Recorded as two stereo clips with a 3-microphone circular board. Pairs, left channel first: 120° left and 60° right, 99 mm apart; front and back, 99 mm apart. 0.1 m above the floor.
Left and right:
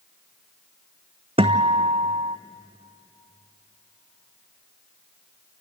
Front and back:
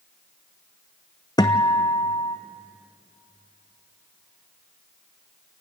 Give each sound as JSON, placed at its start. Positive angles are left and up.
{"t": 1.4, "sound": "a guitar", "azimuth_deg": -50, "distance_m": 1.0}